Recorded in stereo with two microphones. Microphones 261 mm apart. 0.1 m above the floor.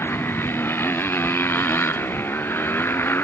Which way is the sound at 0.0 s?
10° left (ahead or behind).